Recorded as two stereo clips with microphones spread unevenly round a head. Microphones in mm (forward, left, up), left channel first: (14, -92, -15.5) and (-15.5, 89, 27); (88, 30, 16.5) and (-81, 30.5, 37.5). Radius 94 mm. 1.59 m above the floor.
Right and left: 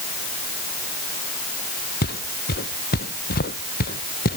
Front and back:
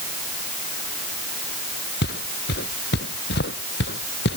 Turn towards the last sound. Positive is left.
turn(degrees=-35)